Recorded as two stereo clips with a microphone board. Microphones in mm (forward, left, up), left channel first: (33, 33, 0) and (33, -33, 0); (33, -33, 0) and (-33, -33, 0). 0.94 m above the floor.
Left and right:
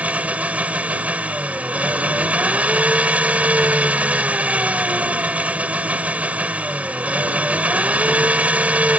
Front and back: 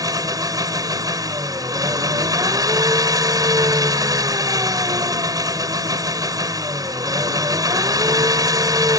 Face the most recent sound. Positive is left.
turn(degrees=-155)